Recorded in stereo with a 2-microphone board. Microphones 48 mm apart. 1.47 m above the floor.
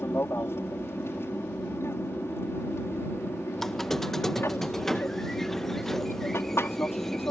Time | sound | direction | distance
0.0 | an aircraft | 60° left (ahead or behind) | ?
3.6 | a squeak | 5° left (ahead or behind) | ?